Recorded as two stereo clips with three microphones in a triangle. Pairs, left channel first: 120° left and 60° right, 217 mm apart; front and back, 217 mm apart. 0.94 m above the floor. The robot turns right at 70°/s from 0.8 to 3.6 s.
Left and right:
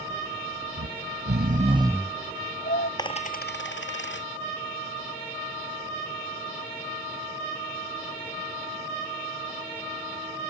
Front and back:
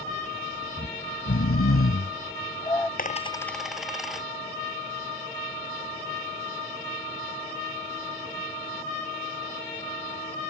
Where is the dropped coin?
50° left; by 4.3 s 90° left.